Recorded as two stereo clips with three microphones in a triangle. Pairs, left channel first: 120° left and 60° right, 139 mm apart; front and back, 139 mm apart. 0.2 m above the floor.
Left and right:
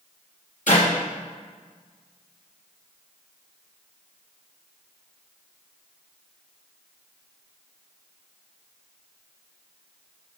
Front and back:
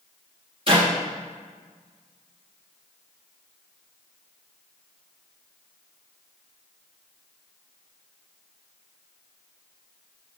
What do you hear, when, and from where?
0.7 s a clap: 135° left, 4.5 m